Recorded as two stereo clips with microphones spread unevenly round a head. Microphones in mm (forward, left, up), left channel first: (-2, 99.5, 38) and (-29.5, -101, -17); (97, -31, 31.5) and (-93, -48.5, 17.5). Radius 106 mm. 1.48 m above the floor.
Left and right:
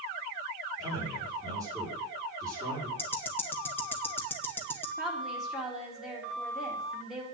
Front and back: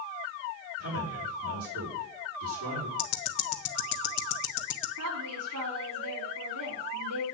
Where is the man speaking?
175° right, 5.5 m.